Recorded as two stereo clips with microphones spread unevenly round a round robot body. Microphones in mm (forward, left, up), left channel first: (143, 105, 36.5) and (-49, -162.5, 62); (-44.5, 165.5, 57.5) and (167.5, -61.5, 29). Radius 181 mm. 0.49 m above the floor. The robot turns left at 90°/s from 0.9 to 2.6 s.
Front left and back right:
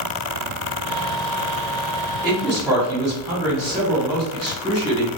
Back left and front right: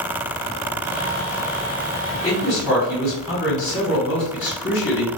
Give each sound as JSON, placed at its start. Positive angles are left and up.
{"t": 2.2, "sound": "a man speaking", "azimuth_deg": 180, "distance_m": 1.8}